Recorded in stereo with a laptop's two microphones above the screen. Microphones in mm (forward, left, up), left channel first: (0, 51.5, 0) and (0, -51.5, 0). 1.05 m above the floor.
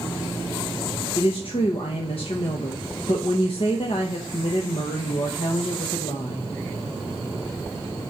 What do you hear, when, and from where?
1.1 s a woman speaking: 65° left (ahead or behind), 0.8 m